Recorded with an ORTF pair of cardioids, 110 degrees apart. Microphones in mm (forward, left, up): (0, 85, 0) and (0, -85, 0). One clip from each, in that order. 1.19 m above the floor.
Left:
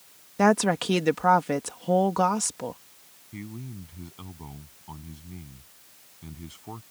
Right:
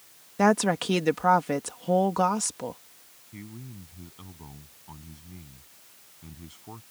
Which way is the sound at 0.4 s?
5° left.